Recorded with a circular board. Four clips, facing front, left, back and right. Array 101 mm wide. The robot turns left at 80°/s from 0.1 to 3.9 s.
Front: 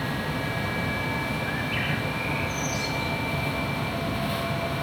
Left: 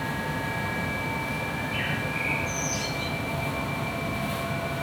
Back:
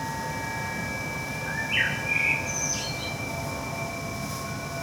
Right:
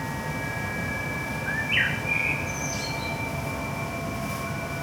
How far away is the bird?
About 6 m.